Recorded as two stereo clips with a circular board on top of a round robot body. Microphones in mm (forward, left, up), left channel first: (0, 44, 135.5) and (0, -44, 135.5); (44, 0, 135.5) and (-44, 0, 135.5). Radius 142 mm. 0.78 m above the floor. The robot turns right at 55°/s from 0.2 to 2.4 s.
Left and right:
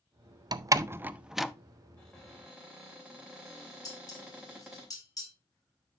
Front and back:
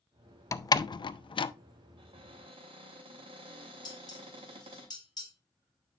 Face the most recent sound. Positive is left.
turn(degrees=40)